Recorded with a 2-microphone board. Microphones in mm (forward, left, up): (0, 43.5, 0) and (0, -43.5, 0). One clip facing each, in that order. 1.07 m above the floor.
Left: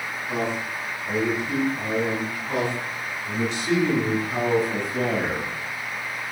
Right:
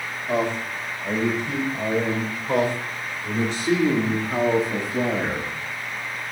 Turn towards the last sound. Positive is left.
turn(degrees=0)  # may be behind; listen again after turning